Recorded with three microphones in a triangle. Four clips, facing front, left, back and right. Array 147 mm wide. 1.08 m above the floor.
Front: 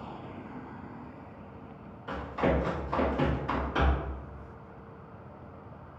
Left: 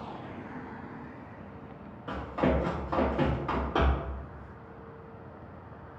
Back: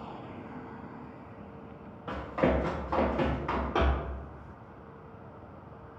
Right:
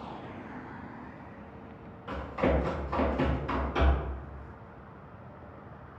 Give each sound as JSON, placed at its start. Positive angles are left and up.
{"t": 2.1, "sound": "running footsteps", "azimuth_deg": 155, "distance_m": 1.7}